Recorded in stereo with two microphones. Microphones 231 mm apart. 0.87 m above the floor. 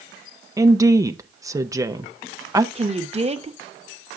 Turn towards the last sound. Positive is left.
turn(degrees=-25)  # may be behind; listen again after turning